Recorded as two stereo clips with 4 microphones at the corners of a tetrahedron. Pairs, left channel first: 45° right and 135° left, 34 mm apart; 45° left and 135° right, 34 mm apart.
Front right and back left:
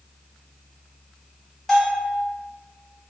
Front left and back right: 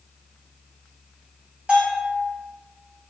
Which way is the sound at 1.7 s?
135° right.